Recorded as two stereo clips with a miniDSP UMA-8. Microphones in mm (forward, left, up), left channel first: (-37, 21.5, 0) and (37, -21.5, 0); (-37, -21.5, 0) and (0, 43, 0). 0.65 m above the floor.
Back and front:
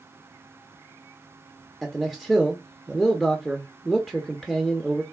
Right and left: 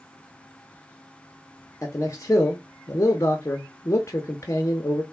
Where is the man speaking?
115° right, 0.7 m.